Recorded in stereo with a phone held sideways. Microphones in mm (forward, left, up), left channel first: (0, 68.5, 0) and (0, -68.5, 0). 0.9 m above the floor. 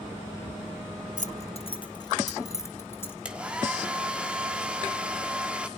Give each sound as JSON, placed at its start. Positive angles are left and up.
{"t": 1.2, "sound": "keys jangling", "side_deg": 65, "distance_m": 0.7}
{"t": 3.2, "sound": "a hair dryer", "side_deg": -10, "distance_m": 1.4}